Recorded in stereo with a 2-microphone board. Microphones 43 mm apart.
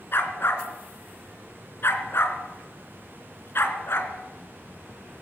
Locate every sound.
0.1 s a dog barking: 60° left (ahead or behind), 2.5 m